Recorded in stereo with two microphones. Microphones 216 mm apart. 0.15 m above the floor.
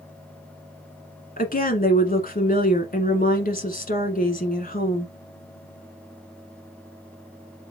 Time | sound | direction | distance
1.4 | a woman speaking | 40° left (ahead or behind) | 1.4 m